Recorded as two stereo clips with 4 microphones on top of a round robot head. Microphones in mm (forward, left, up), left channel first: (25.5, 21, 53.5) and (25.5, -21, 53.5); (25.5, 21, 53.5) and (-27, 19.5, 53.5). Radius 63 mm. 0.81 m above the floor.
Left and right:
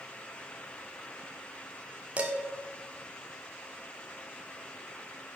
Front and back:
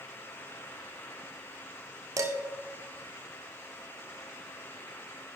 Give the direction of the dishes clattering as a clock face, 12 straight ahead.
5 o'clock.